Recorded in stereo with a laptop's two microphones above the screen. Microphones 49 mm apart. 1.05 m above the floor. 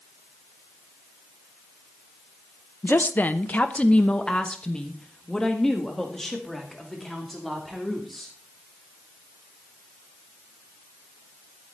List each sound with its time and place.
2.8 s a woman speaking: 45° left (ahead or behind), 0.7 m; by 8.3 s centre (ahead or behind), 3 m